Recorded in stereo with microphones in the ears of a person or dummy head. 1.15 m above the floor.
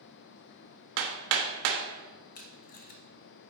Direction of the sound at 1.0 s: 70° right (ahead or behind).